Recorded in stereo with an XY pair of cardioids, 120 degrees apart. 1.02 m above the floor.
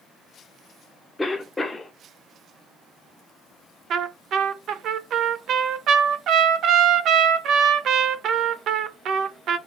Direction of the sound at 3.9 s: 60° right.